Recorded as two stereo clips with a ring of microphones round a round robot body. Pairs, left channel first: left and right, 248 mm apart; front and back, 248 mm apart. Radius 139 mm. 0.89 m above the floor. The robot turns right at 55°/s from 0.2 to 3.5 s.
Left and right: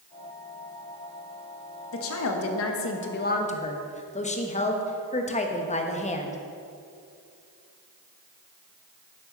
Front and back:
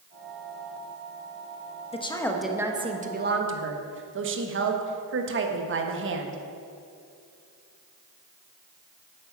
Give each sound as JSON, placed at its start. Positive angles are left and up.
{"t": 1.9, "sound": "a woman speaking", "azimuth_deg": 65, "distance_m": 1.2}